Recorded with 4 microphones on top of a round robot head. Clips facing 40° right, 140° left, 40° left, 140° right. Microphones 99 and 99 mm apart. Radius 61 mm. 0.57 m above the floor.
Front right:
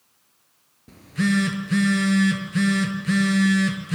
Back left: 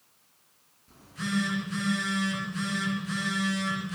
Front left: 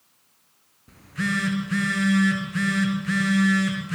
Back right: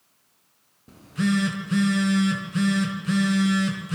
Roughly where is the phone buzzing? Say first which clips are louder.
Front right 9 dB, back right 4 dB; right.